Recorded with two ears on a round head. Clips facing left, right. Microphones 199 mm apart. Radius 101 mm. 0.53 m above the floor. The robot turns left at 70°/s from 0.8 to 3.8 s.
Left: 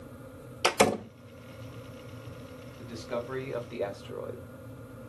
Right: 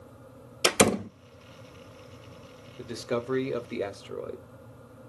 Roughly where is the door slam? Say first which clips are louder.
Right 2 dB; right.